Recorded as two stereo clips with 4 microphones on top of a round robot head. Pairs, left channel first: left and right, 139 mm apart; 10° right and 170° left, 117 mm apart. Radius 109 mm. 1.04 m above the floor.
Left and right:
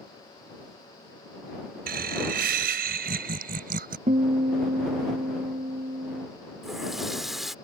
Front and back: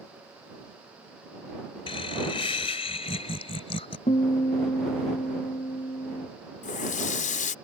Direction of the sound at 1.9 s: 65° right.